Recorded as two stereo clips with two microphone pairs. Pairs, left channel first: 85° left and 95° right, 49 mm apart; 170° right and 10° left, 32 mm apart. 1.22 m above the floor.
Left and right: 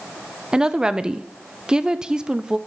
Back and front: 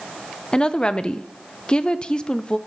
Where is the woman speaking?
145° right, 0.5 m.